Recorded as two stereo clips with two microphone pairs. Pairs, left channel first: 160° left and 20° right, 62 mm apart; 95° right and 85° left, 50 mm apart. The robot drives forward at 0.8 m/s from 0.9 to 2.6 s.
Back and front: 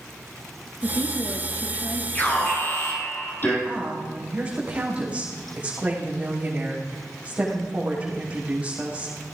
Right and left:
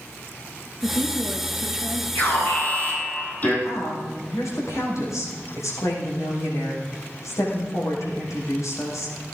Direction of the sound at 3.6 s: 90° right.